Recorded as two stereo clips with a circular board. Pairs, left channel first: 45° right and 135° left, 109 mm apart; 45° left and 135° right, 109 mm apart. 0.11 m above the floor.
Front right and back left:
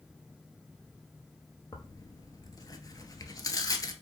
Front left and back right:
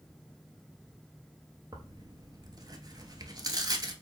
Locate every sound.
1.7 s tearing paper: 90° right, 0.6 m